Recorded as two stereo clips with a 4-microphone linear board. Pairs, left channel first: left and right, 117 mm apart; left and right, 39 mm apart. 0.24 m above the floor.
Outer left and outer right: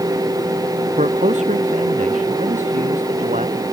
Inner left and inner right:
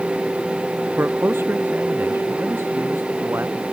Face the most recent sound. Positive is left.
turn(degrees=-85)